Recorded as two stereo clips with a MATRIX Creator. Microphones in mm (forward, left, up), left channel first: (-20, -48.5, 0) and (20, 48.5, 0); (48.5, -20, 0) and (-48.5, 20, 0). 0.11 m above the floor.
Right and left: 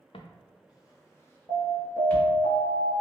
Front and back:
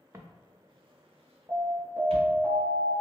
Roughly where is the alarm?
Behind right.